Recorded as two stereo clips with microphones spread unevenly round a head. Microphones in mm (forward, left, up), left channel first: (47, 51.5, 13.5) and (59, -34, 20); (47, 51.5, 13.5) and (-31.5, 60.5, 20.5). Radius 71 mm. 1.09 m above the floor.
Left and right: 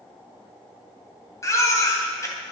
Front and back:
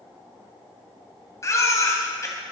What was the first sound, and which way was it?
A baby crying, 45° left.